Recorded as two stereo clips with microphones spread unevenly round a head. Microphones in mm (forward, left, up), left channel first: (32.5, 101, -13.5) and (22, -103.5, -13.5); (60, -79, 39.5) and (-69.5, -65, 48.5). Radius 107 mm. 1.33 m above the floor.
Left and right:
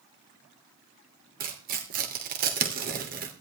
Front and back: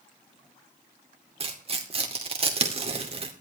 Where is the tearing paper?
145° right, 2.5 m.